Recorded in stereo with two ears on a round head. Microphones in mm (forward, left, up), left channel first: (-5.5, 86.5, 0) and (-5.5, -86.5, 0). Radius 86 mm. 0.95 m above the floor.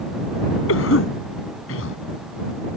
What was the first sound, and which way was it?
A cough, 80° left.